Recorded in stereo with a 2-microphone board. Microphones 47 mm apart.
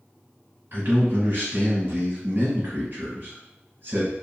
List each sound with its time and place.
0.7 s a man speaking: 50° right (ahead or behind), 1.4 m